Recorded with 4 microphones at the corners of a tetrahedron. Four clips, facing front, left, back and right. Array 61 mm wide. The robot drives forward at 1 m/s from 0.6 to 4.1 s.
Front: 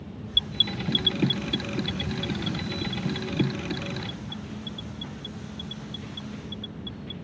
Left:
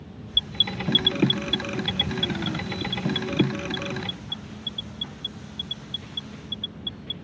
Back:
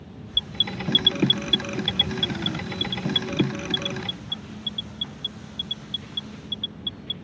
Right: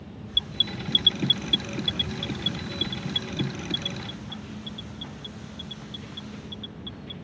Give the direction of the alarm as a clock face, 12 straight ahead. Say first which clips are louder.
Left 2 dB, even; 8 o'clock.